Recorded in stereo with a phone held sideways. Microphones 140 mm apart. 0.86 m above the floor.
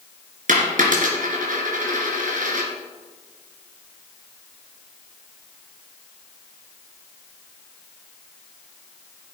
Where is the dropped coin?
75° right (ahead or behind), 3 m.